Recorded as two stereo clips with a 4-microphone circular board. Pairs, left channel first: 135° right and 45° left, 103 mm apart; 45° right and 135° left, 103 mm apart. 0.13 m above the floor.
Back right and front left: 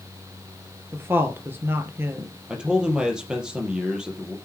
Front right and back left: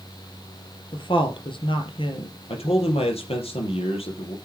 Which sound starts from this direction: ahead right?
A man speaking, at 2.5 s.